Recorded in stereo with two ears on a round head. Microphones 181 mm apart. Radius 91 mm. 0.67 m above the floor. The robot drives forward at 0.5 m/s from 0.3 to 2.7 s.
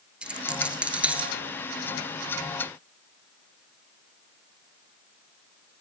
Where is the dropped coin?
5° right (ahead or behind), 2 m.